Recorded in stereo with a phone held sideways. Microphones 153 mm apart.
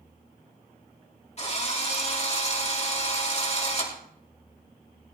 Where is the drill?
45° left (ahead or behind), 3 m.